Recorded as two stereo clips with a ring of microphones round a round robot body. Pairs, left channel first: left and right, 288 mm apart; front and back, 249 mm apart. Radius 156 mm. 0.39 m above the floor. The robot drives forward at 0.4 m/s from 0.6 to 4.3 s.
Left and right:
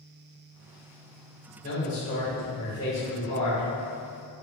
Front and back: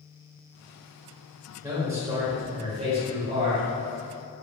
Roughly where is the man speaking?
Behind left.